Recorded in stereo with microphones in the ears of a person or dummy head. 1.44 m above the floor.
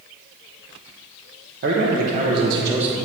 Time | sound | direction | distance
1.6 | a man speaking | 65° right (ahead or behind) | 0.9 m